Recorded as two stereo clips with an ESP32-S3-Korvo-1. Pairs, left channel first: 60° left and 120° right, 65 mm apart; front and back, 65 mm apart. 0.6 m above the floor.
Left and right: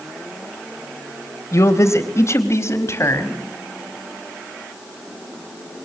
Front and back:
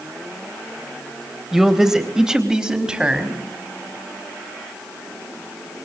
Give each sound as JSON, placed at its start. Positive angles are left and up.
{"t": 1.5, "sound": "a man speaking", "azimuth_deg": 95, "distance_m": 3.0}